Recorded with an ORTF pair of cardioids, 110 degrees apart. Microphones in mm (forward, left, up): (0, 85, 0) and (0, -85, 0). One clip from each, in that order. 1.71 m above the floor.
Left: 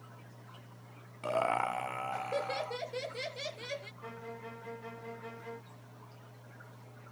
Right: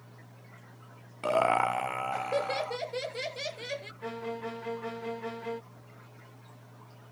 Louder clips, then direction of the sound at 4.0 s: Right 8 dB; 55° right.